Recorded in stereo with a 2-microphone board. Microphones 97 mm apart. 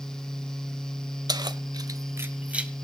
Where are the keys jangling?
45° right (ahead or behind), 0.9 m; by 2.7 s 10° right (ahead or behind), 1.4 m.